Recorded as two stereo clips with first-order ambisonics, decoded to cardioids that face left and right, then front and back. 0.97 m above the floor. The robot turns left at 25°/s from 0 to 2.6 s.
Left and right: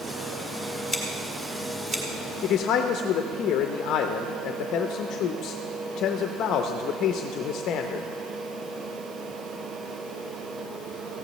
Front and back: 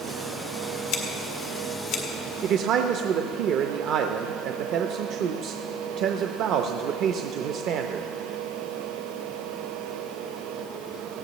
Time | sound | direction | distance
0.9 | scissors | straight ahead | 1.8 m
2.4 | a man speaking | 140° left | 0.6 m